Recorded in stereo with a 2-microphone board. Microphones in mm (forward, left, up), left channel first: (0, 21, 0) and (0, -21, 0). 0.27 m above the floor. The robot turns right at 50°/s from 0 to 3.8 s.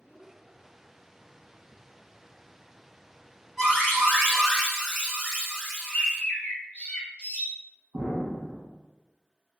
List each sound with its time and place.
3.6 s an alarm: centre (ahead or behind), 1.9 m; by 6.2 s 5° left (ahead or behind), 1.9 m
5.8 s a bird: 40° left (ahead or behind), 0.8 m
7.9 s an explosion: 40° right (ahead or behind), 1.1 m